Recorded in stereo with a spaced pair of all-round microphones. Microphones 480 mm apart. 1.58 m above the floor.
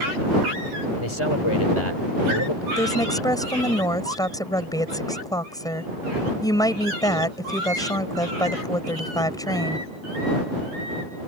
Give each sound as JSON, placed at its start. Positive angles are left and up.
{"t": 1.0, "sound": "a man speaking", "side_deg": 80}
{"t": 2.8, "sound": "a woman speaking", "side_deg": 5}